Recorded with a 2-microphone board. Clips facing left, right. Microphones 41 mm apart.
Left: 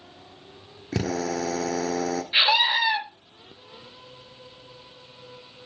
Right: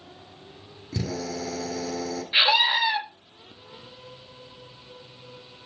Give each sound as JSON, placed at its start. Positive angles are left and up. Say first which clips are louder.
{"t": 0.9, "sound": "a drill", "louder": "left 4 dB", "side_deg": 65, "distance_m": 2.0}
{"t": 2.3, "sound": "a scream", "louder": "right 1 dB", "side_deg": -5, "distance_m": 1.7}